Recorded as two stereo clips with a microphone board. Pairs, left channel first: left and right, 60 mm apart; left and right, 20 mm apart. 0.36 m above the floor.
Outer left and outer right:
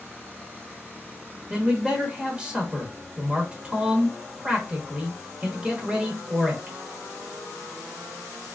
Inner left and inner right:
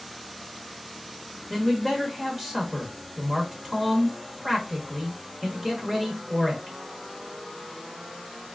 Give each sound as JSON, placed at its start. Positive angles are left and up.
{"t": 1.5, "sound": "a man speaking", "side_deg": -20, "distance_m": 0.9}